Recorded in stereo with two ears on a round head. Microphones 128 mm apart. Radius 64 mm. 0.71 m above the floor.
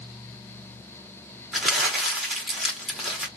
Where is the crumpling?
5° right (ahead or behind), 1.1 m.